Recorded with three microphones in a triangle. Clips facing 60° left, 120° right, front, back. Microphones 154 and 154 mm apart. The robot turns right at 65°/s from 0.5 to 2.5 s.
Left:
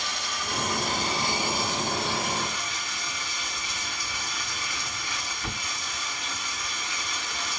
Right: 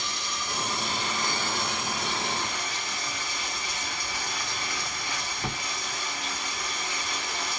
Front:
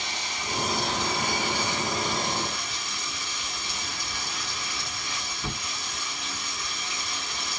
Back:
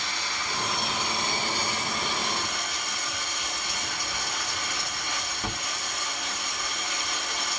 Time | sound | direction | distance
0.0 | running water | 65° left | 1.9 m